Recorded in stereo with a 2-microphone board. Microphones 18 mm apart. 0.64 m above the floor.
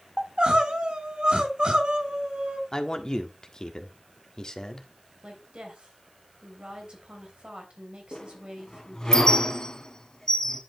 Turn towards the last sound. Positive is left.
turn(degrees=40)  # may be behind; listen again after turning